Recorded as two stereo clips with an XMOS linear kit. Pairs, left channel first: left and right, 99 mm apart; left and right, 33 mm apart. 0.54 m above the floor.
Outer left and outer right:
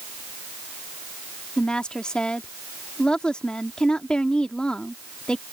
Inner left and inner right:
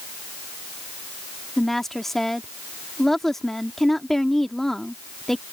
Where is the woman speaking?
10° left (ahead or behind).